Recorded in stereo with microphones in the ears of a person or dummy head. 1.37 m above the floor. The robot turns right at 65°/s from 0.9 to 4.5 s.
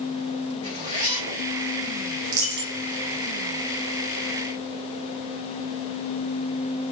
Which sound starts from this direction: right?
A dropped coin, at 2.2 s.